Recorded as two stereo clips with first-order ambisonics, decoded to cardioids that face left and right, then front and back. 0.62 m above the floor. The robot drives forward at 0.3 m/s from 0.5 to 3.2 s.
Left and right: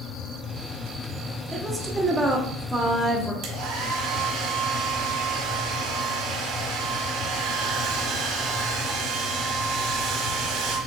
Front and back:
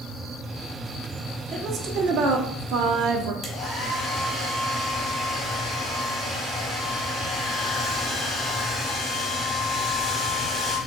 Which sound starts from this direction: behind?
A woman speaking, at 1.5 s.